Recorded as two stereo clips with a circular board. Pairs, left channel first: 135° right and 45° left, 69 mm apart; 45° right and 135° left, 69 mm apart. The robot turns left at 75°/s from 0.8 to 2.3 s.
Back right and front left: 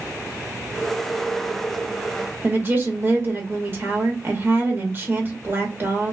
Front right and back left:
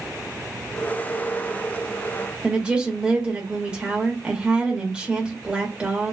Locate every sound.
2.4 s a woman speaking: 70° left, 0.9 m